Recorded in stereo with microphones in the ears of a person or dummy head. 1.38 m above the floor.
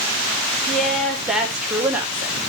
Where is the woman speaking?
5° left (ahead or behind), 4 m; by 2.5 s 15° right (ahead or behind), 4 m.